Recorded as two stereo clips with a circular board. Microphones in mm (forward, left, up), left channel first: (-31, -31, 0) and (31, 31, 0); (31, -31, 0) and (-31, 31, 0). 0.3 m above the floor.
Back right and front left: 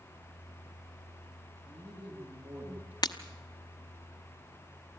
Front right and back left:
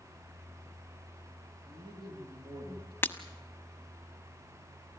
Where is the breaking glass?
110° right, 1.0 m.